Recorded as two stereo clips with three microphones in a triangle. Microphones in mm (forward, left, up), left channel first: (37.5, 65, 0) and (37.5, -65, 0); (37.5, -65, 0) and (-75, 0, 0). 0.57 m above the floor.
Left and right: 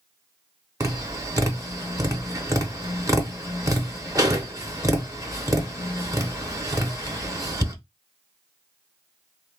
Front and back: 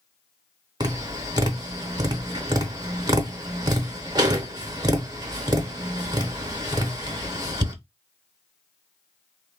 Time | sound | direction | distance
0.8 | tapping | 150° right | 0.7 m